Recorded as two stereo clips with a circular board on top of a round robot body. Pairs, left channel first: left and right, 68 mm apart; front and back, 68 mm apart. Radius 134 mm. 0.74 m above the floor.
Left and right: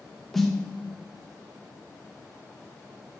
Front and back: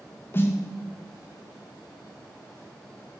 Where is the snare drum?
5° left, 0.6 m.